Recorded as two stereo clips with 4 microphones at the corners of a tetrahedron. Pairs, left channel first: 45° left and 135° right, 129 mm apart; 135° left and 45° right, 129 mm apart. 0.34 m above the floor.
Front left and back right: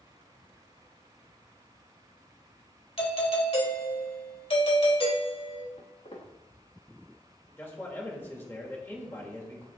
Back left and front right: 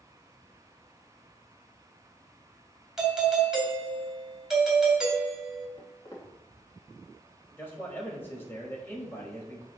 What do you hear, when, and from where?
3.0 s a doorbell: 40° left, 2.0 m
5.8 s footsteps: 75° left, 3 m
7.6 s a man speaking: 90° left, 1.6 m